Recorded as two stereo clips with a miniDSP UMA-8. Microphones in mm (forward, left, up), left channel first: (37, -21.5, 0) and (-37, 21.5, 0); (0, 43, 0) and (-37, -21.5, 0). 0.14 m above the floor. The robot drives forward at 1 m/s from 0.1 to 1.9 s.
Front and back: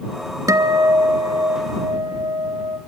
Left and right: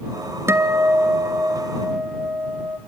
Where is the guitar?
170° right, 1.0 m; by 2.8 s 175° right, 2.5 m.